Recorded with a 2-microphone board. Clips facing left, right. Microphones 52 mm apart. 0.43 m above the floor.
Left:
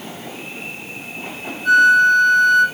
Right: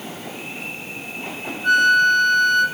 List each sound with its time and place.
1.6 s a flute: 40° right (ahead or behind), 4.5 m